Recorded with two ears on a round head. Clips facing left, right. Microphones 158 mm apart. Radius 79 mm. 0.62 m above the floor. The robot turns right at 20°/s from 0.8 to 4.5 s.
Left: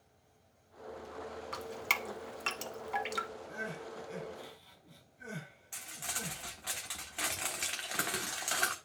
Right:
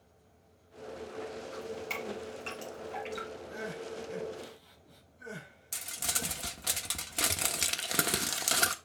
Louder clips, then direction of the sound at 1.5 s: Right 2 dB; 80° left.